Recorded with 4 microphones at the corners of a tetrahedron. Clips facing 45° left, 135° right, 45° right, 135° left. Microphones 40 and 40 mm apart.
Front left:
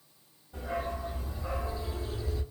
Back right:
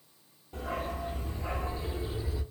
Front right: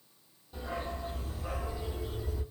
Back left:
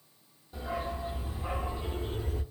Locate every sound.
0.5 s a dog barking: 135° right, 1.1 m; by 2.4 s 150° left, 0.7 m